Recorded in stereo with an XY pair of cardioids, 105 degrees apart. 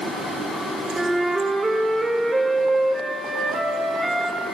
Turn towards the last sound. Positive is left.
turn(degrees=-25)